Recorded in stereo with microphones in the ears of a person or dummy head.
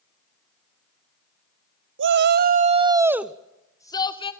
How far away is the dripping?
I don't hear dripping.